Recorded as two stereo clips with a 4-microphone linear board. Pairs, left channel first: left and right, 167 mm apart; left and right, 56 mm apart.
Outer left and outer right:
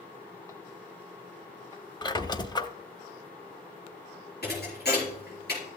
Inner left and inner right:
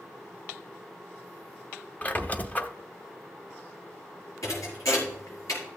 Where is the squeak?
25° left (ahead or behind), 0.7 m.